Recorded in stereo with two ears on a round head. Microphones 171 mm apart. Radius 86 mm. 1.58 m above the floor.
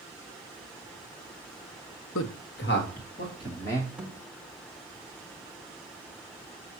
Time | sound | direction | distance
2.1 | a man speaking | 75° left (ahead or behind) | 0.7 m
4.0 | a thud | 5° right (ahead or behind) | 1.4 m